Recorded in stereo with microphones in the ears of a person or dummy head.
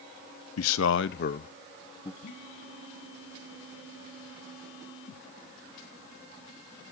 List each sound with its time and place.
0.6 s a man speaking: 70° left (ahead or behind), 0.9 m; by 2.1 s 25° left (ahead or behind), 1.2 m
2.2 s a phone buzzing: 55° left (ahead or behind), 4.5 m